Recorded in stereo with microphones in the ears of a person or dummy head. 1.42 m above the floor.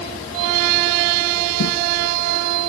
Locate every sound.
1.6 s footsteps: 70° left (ahead or behind), 4.5 m